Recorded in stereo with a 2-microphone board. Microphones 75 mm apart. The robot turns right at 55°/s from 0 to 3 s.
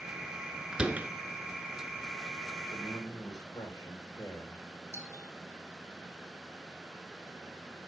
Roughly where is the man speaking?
Left.